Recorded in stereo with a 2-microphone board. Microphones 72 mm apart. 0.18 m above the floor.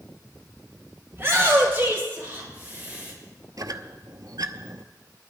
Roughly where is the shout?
Right.